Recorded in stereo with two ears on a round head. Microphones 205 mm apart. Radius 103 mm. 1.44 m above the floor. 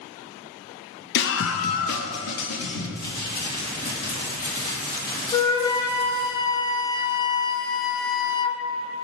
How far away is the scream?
About 0.6 m.